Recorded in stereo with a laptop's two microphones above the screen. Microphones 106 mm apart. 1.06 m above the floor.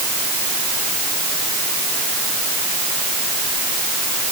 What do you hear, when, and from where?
Only background noise.